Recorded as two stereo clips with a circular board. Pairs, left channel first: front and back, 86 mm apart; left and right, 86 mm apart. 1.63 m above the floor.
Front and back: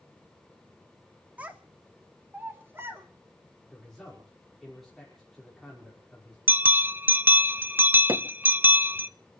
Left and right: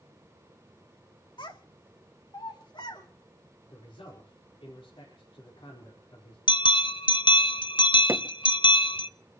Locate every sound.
1.4 s a child speaking: 110° left, 2 m; by 3.1 s 115° left, 4 m
3.7 s a man speaking: 85° left, 5 m
6.5 s a bell: 115° left, 0.6 m
8.1 s hammering: 140° right, 1.2 m